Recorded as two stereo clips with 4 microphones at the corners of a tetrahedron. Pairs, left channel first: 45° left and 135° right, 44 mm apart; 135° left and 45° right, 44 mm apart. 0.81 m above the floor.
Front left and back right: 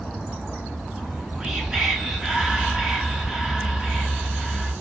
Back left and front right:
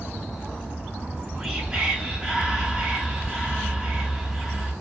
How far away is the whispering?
About 0.7 m.